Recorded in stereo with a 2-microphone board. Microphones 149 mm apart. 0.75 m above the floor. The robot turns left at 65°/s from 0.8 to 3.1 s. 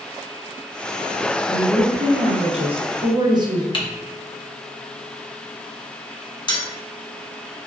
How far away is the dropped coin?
About 0.7 m.